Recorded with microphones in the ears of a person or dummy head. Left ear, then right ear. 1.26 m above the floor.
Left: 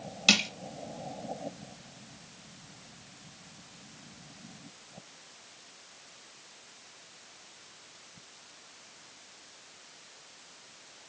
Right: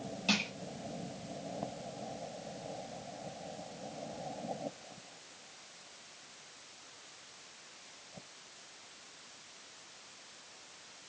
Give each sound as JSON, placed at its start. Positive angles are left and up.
{"t": 0.3, "sound": "crushing", "side_deg": 50, "distance_m": 1.7}